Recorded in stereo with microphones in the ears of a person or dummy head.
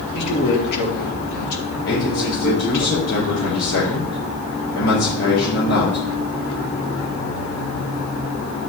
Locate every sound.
0.1 s a man speaking: 60° left (ahead or behind), 3 m
1.9 s a man speaking: 85° left, 5 m